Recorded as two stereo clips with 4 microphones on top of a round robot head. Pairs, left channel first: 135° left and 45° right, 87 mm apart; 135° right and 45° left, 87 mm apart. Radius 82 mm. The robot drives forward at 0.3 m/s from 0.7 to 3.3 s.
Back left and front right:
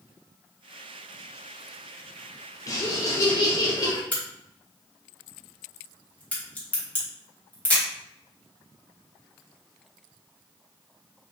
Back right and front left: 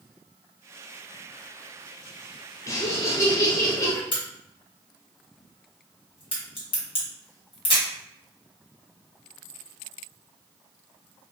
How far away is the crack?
About 1.6 m.